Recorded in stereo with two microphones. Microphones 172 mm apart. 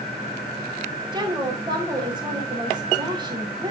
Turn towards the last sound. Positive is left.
turn(degrees=-25)  # may be behind; listen again after turning